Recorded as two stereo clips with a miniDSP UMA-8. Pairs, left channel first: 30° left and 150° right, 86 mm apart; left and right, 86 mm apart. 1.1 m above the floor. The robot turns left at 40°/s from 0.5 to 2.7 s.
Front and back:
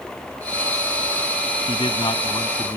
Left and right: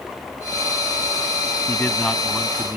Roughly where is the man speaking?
Ahead left.